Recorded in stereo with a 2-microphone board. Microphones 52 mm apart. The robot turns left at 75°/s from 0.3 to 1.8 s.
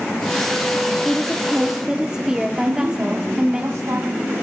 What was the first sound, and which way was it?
A woman speaking, 5° left (ahead or behind).